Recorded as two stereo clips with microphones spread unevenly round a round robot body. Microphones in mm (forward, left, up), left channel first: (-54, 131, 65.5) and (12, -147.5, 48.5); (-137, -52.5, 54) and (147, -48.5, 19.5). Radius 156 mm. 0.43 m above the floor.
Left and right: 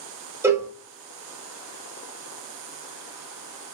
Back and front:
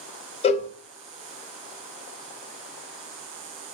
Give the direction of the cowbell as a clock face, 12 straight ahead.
4 o'clock.